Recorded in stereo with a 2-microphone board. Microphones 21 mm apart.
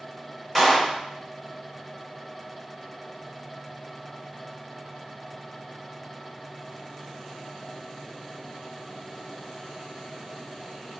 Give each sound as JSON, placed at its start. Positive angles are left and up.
{"t": 0.6, "sound": "a clap", "side_deg": 5, "distance_m": 3.5}